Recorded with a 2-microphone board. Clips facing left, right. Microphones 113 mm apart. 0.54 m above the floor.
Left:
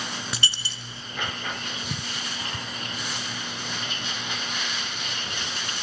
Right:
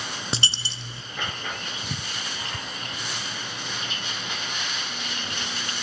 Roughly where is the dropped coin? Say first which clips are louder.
Right 2 dB; right.